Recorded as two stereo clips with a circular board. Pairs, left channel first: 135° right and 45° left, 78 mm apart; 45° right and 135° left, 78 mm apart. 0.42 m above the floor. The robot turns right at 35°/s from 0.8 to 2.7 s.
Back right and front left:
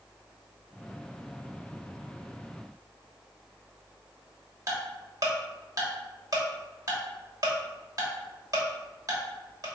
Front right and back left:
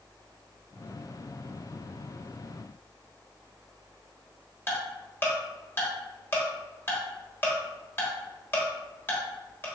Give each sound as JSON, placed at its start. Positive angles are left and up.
{"t": 4.7, "sound": "ticking", "azimuth_deg": 15, "distance_m": 1.2}